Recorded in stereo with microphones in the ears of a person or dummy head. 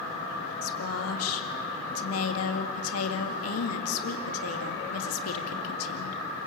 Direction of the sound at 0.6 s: 90° left.